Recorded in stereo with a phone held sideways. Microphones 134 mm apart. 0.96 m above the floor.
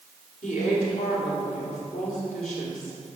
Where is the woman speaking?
75° left (ahead or behind), 4 m.